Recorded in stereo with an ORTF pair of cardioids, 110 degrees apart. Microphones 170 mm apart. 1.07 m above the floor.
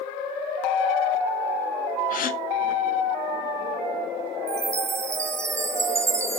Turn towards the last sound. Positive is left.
turn(degrees=-15)